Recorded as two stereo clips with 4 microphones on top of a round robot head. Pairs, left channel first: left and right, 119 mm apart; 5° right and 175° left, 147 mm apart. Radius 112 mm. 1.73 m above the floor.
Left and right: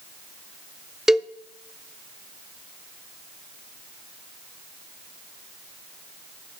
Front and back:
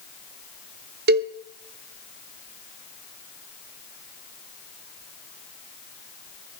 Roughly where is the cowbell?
Behind.